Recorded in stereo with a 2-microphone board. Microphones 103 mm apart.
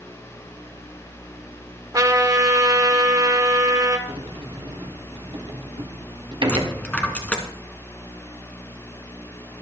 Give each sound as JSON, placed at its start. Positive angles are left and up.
{"t": 1.9, "sound": "a trumpet", "side_deg": -35, "distance_m": 1.5}
{"t": 4.1, "sound": "a sliding door", "side_deg": -55, "distance_m": 1.8}
{"t": 6.5, "sound": "a dropped coin", "side_deg": 15, "distance_m": 1.7}